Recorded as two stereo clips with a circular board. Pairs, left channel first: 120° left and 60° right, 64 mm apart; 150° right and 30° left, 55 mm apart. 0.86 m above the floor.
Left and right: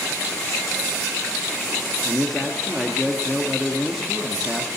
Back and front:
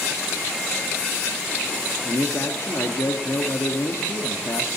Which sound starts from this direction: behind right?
A man speaking, at 2.0 s.